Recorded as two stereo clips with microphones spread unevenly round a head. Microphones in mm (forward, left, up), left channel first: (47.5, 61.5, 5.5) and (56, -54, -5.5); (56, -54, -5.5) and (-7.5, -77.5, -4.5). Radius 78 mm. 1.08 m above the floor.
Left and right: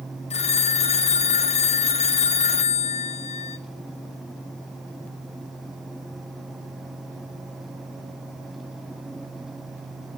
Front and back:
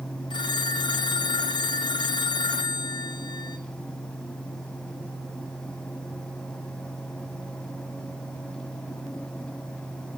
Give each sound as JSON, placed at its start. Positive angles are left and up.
{"t": 0.3, "sound": "a phone ringing", "azimuth_deg": 65, "distance_m": 0.7}